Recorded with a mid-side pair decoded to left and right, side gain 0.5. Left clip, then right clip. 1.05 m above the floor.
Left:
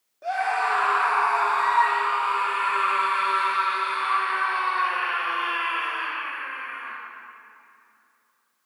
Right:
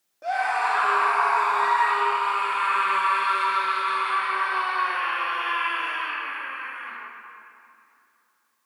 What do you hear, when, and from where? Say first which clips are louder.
0.2 s a scream: even; 10° right, 2.5 m; by 7.0 s 45° left, 5.5 m